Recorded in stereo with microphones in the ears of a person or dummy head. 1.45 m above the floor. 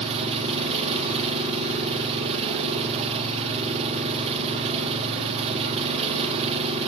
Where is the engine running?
30° right (ahead or behind), 4 m.